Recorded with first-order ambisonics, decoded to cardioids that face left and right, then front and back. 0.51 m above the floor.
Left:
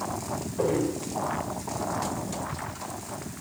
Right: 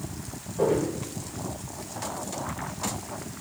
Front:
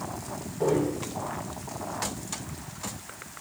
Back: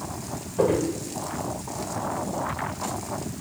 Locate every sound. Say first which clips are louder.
0.6 s footsteps: right 2 dB, back 3 dB; 175° left, 5 m